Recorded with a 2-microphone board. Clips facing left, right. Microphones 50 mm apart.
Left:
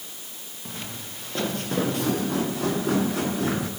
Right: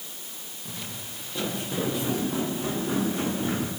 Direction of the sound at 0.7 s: 50° left (ahead or behind).